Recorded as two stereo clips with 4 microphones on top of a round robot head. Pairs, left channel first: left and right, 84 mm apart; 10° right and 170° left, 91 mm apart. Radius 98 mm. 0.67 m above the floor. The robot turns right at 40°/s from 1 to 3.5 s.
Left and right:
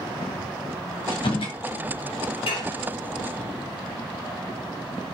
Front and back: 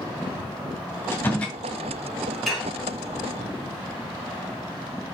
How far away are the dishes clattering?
About 3.5 m.